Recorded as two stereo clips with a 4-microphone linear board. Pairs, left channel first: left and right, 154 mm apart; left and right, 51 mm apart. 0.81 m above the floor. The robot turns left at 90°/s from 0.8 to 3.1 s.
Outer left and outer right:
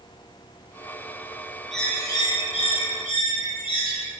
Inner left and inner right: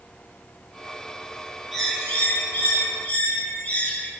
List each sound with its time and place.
1.7 s a bird: straight behind, 1.1 m; by 4.1 s 55° left, 1.1 m